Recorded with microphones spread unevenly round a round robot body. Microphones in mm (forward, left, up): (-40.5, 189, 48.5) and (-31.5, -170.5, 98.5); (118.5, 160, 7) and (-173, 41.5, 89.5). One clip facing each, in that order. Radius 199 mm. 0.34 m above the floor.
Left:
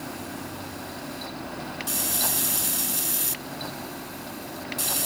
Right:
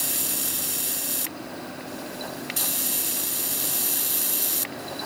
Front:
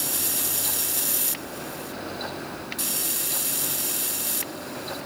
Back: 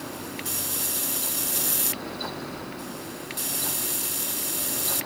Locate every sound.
Only background noise.